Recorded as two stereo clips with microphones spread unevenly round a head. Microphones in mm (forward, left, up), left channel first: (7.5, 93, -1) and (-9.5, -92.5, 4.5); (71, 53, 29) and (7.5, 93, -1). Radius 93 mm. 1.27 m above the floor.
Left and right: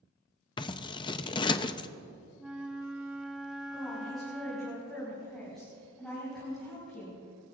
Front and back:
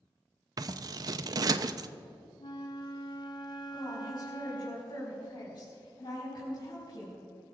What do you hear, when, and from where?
0.6 s scissors: 125° left, 0.5 m
2.4 s a flute: 10° right, 1.2 m
3.7 s a woman speaking: 5° right, 4.5 m